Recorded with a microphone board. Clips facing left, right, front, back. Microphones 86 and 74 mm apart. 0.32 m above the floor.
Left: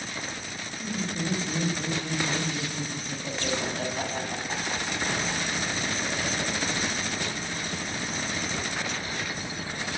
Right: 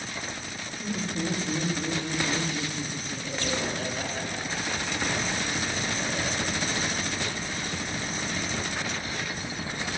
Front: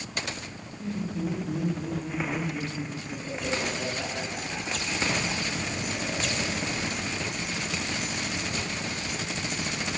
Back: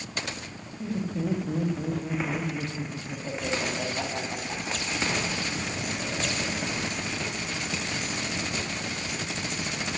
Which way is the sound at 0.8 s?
140° right.